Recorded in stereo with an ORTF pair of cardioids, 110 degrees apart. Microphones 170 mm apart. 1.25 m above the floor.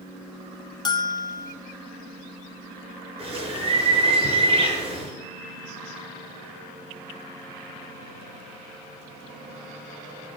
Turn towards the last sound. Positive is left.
turn(degrees=-35)